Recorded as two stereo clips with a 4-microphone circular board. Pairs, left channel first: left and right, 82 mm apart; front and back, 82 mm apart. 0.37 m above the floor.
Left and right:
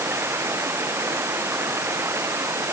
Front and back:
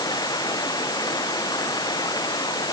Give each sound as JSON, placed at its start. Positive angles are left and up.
{"t": 0.0, "sound": "running water", "azimuth_deg": -30}